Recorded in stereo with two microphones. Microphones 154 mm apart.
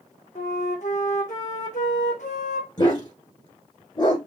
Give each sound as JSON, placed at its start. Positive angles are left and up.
{"t": 0.3, "sound": "a flute", "side_deg": 60, "distance_m": 3.0}
{"t": 2.8, "sound": "a dog barking", "side_deg": 30, "distance_m": 1.7}